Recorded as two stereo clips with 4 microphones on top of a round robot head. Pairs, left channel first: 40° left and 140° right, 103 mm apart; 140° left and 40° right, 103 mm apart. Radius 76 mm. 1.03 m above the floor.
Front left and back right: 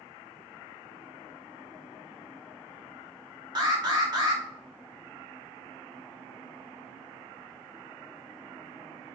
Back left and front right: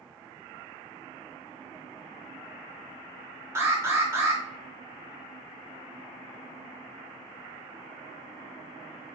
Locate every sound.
3.5 s an alarm: 105° right, 2.5 m